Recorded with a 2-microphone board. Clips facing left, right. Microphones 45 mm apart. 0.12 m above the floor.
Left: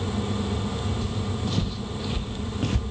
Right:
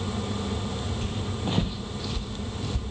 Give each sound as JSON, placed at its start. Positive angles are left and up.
{"t": 1.0, "sound": "footsteps", "side_deg": -45, "distance_m": 1.7}